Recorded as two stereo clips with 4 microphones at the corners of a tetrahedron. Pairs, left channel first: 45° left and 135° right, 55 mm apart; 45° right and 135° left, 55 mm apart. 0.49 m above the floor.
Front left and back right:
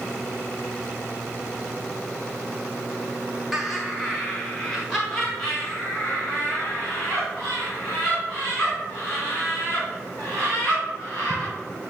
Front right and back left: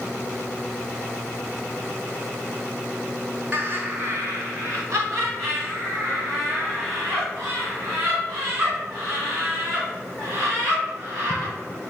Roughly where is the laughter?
Behind left.